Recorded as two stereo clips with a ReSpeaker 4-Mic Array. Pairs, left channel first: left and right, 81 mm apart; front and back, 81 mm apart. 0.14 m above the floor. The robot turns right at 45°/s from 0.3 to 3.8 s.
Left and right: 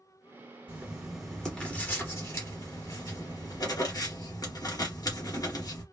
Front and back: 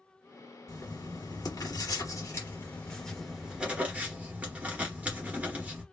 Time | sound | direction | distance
0.7 | writing | 30° right | 2 m